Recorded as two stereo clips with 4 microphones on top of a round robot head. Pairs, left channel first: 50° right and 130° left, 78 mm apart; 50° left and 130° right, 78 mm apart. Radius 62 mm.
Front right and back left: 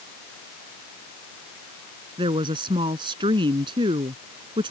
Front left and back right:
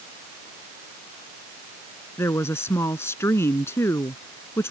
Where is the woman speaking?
110° left.